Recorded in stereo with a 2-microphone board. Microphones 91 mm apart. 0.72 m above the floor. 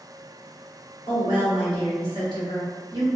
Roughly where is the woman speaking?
Right.